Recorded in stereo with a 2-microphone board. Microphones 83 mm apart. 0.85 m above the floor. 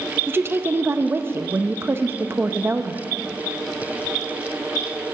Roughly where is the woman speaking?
Right.